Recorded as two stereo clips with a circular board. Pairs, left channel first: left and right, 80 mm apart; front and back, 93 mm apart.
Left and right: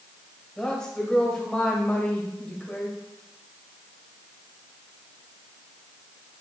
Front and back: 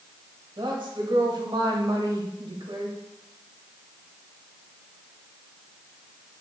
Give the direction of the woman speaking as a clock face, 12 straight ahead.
6 o'clock.